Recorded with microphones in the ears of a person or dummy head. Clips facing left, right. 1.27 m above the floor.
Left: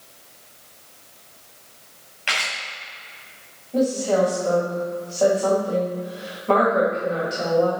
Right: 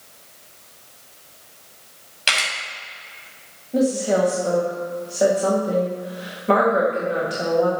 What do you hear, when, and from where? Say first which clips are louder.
2.3 s a camera shutter: right 2 dB; 55° right (ahead or behind), 2.5 m
3.7 s a woman speaking: right 1 dB; 25° right (ahead or behind), 1.9 m